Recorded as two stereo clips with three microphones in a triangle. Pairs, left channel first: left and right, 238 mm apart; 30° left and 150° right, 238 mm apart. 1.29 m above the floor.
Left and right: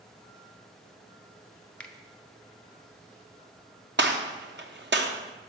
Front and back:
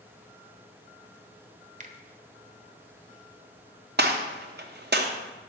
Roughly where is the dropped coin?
I don't hear a dropped coin.